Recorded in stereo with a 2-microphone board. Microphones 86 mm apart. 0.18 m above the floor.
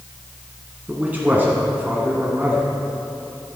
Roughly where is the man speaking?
Right.